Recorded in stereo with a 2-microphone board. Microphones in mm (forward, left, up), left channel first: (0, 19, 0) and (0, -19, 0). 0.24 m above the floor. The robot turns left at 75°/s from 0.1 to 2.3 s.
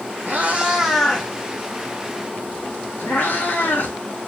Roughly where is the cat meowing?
Right.